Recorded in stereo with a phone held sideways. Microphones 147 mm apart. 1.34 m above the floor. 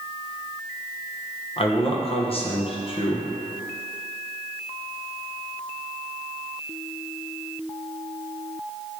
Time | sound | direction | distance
1.6 | a man speaking | 40° left (ahead or behind) | 1.4 m